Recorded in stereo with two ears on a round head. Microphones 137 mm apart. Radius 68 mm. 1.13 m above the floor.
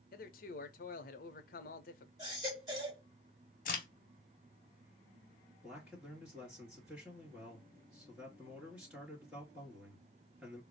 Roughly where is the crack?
Left.